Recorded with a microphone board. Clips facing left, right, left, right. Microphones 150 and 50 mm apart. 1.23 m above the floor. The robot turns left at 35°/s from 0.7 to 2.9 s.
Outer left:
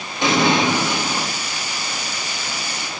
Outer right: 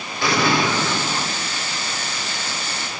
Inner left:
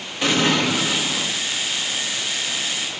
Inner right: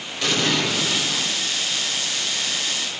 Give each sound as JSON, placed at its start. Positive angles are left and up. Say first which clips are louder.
{"t": 0.2, "sound": "an explosion", "louder": "outer left 2 dB, inner left 3 dB", "side_deg": 20, "distance_m": 1.4}